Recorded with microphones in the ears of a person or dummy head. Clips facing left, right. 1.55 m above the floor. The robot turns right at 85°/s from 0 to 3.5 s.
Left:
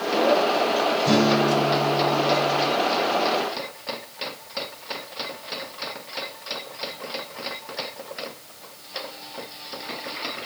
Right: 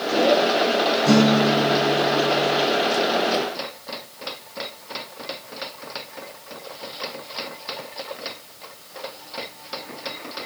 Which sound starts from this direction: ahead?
A guitar, at 1.1 s.